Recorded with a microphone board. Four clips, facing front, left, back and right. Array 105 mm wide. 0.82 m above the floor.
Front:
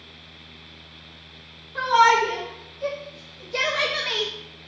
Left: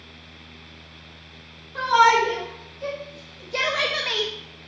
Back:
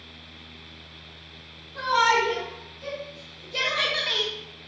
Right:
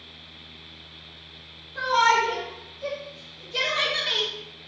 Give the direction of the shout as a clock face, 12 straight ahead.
10 o'clock.